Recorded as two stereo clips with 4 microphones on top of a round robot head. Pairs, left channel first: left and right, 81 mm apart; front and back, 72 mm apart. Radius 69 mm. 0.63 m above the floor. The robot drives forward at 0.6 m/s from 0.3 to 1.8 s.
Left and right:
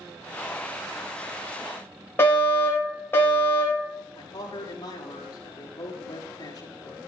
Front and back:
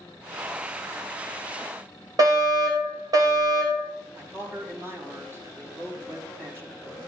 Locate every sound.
2.2 s a fire alarm: 155° left, 5.5 m
4.2 s a man speaking: 130° left, 5 m